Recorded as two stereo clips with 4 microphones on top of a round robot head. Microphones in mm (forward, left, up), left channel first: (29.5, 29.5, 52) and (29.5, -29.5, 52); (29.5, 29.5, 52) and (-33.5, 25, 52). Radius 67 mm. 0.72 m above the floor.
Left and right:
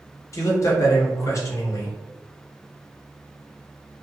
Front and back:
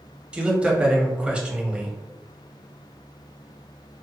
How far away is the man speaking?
About 0.9 m.